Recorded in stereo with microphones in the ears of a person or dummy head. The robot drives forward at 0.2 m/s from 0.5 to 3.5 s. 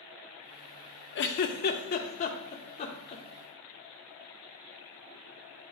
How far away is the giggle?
About 0.6 m.